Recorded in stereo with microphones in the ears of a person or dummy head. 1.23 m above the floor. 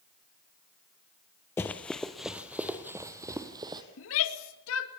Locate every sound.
1.6 s running footsteps: 10° left (ahead or behind), 1.6 m; by 3.8 s 25° right (ahead or behind), 2.5 m
4.0 s a shout: 70° left (ahead or behind), 2.5 m